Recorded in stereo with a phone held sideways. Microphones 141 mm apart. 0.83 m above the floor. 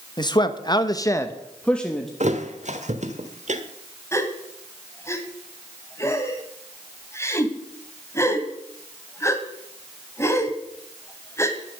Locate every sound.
0.2 s a man speaking: 30° left (ahead or behind), 1.1 m; by 2.1 s centre (ahead or behind), 1.3 m
2.2 s a thud: 60° right (ahead or behind), 1.3 m
4.1 s a gasp: 20° left (ahead or behind), 1.6 m